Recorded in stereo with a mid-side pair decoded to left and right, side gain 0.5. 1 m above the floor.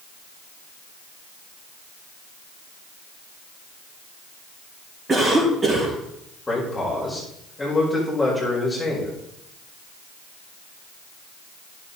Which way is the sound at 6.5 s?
15° left.